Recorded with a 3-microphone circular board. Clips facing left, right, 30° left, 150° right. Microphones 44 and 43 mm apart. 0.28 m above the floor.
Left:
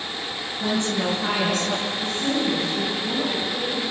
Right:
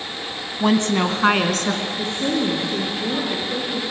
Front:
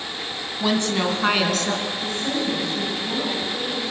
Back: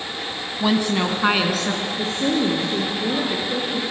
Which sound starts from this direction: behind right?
A woman speaking, at 1.9 s.